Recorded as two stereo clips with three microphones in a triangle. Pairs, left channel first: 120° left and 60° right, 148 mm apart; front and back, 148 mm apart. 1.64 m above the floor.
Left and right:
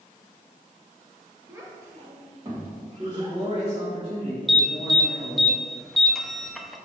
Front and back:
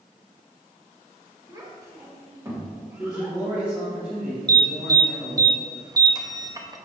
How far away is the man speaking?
About 2 m.